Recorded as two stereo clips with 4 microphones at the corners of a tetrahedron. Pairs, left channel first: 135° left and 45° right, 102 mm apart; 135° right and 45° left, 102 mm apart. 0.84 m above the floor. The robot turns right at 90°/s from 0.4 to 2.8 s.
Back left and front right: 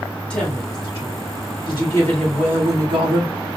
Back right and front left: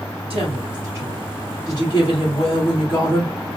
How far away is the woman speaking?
About 2.5 m.